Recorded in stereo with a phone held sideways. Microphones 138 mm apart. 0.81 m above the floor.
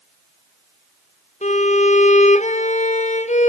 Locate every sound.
1.4 s a violin: 55° left (ahead or behind), 0.7 m